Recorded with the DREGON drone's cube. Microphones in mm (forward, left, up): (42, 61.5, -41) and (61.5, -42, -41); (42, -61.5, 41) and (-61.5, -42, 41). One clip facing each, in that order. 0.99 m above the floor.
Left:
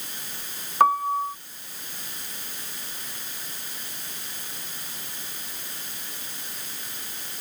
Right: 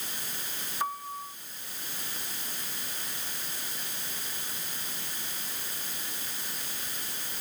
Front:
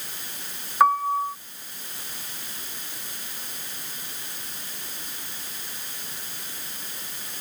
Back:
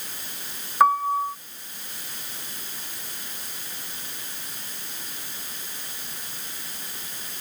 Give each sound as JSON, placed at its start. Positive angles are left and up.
{"t": 0.8, "sound": "a piano", "azimuth_deg": 80}